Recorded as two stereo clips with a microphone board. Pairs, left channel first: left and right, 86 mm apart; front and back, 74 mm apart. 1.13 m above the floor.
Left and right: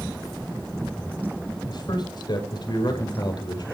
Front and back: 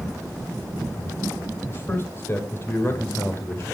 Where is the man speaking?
55° left, 5.5 m.